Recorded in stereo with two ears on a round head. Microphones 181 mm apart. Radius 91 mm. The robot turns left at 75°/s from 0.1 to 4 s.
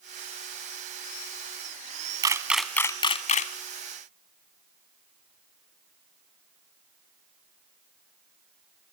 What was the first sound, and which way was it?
A camera shutter, 20° right (ahead or behind).